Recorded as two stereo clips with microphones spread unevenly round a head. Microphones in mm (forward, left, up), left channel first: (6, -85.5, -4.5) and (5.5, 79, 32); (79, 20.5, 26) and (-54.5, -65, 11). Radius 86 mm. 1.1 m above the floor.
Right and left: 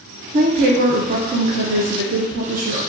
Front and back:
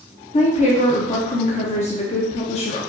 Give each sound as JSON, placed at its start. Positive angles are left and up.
{"t": 0.3, "sound": "a woman speaking", "azimuth_deg": 60, "distance_m": 0.6}